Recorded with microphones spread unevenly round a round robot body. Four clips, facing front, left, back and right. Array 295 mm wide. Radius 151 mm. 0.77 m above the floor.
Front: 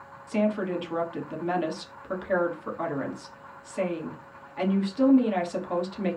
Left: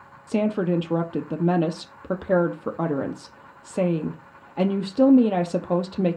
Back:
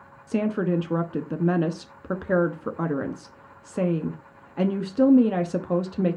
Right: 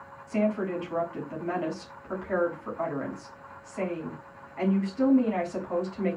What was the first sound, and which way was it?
A woman speaking, 130° left.